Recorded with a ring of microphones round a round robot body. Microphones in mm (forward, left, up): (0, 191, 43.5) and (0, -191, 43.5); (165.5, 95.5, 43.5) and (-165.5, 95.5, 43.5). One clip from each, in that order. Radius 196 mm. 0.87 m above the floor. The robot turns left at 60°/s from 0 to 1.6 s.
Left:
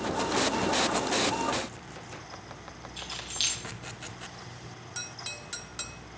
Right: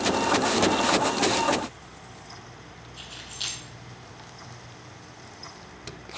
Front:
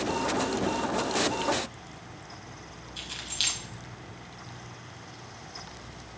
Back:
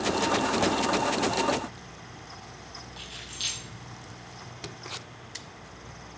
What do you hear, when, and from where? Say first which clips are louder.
3.0 s keys jangling: left 3 dB, front 5 dB; 35° left, 4.5 m